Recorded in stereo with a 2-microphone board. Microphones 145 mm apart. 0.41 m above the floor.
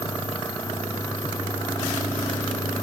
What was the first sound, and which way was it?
Only background noise.